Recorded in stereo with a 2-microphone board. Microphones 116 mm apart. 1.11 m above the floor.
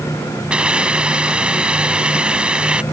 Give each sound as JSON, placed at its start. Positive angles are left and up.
{"t": 0.5, "sound": "a hiss", "side_deg": -10}